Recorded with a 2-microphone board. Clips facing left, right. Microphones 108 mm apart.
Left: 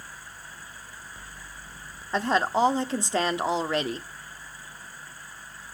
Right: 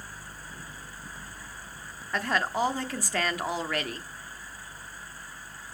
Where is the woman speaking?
25° left (ahead or behind), 1.0 m.